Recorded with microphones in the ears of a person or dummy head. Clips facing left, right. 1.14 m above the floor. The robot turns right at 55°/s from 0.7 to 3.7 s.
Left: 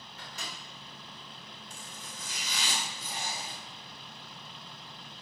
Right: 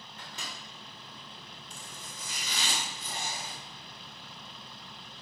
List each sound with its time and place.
0.2 s a microwave: 25° right (ahead or behind), 1.0 m
1.7 s chopping: 105° right, 1.5 m; by 3.6 s 5° right, 1.5 m